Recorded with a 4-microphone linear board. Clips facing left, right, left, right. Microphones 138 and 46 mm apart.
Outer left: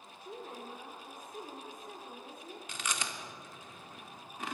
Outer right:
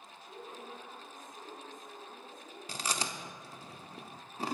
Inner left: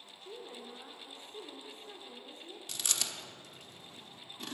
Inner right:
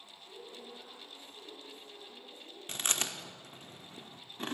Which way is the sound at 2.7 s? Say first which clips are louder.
Outer right 3 dB, inner right 3 dB; 35° right (ahead or behind).